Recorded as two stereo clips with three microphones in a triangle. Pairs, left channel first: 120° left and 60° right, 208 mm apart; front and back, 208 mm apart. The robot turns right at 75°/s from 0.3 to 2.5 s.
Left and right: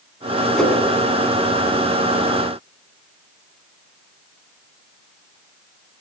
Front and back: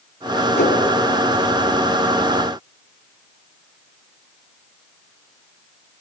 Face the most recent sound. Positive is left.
turn(degrees=175)